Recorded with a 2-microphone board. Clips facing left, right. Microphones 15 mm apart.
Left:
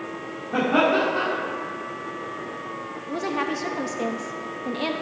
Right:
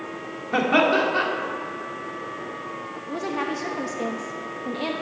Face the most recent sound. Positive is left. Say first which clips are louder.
# left 1 dB
turn(degrees=10)  # may be behind; listen again after turning